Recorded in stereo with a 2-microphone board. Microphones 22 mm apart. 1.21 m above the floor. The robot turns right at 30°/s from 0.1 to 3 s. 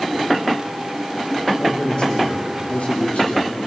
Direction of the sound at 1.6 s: 40° left.